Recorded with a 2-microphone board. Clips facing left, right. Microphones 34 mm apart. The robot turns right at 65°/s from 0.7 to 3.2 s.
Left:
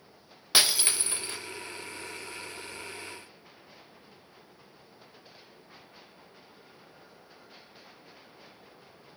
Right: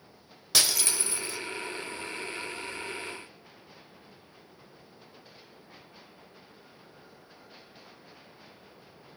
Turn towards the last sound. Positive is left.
turn(degrees=-170)